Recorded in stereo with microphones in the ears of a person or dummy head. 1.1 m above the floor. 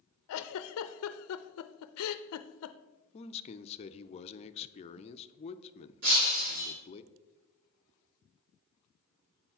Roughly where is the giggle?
Left.